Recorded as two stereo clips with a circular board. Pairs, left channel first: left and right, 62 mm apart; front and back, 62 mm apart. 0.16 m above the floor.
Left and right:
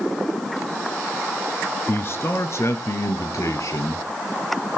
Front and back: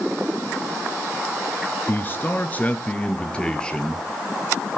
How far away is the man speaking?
About 2.5 m.